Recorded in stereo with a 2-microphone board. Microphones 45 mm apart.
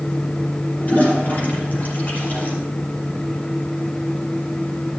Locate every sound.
0.8 s a toilet flushing: 45° left (ahead or behind), 6 m